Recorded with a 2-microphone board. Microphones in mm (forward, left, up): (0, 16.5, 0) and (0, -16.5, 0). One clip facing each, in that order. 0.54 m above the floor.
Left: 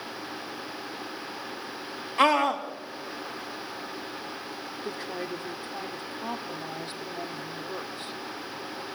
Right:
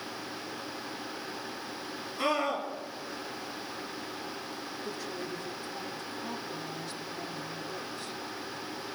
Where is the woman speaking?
40° left (ahead or behind), 1.2 m.